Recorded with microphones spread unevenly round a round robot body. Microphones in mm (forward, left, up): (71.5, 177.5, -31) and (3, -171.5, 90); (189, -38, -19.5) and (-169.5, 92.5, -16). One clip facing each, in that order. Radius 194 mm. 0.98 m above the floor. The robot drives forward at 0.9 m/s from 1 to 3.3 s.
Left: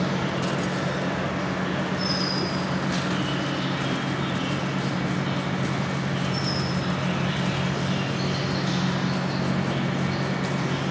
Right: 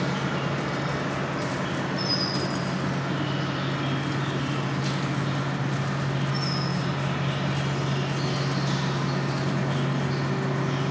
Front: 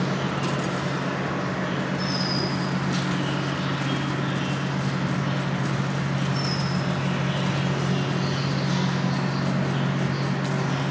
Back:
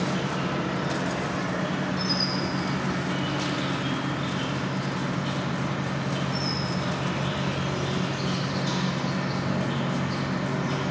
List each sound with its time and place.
0.0 s an insect: 125° right, 1.9 m; by 10.9 s 155° right, 3.5 m